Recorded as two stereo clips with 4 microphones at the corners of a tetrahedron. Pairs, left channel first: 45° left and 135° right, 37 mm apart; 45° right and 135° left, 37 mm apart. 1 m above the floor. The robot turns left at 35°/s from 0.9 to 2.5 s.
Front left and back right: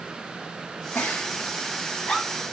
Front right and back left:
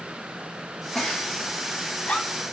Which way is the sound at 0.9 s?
35° left.